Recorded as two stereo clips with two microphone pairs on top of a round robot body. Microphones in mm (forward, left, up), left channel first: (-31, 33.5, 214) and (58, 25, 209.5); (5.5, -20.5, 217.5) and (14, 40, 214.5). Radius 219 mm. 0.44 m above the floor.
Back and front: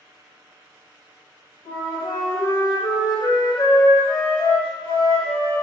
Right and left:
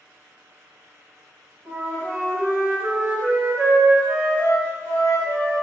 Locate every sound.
1.6 s a flute: 145° left, 1.4 m